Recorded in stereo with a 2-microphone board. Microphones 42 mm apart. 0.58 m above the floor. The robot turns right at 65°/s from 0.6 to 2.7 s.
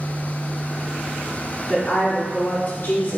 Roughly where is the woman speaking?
Ahead.